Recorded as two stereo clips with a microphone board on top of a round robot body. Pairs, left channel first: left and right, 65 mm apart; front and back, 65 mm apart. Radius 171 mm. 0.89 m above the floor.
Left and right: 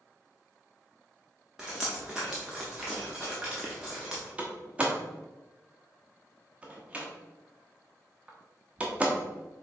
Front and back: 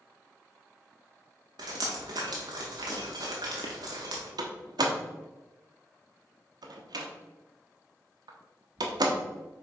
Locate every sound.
1.6 s dripping: 170° right, 0.6 m
4.4 s a door slam: 160° right, 0.8 m